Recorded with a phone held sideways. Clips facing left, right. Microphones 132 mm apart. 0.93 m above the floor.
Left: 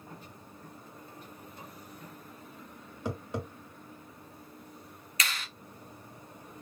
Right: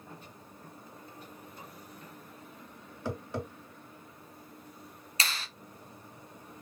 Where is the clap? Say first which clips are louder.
Even; 30° right (ahead or behind), 0.6 m.